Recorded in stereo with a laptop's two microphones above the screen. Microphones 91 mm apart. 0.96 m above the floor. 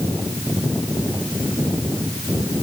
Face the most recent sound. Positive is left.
No sound to turn to.